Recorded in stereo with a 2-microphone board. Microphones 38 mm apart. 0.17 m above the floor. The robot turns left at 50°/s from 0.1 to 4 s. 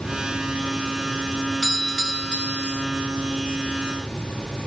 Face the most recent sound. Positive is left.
turn(degrees=65)